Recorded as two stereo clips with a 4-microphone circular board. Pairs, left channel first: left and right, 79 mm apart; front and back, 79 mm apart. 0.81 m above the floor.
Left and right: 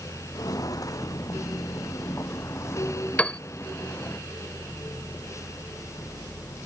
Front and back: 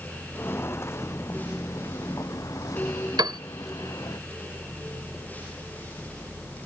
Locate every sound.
0.3 s footsteps: 60° left; by 4.2 s 35° left
3.2 s a piano: 165° left